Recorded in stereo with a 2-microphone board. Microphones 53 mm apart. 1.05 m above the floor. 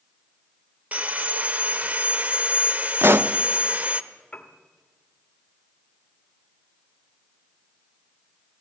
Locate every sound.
0.9 s sawing: 30° right (ahead or behind), 0.8 m
3.0 s a pop: 50° right (ahead or behind), 0.7 m
4.3 s a piano: 20° left (ahead or behind), 1.7 m